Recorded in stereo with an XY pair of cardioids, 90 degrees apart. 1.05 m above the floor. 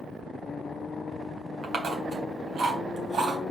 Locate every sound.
1.6 s chewing: 65° right, 3 m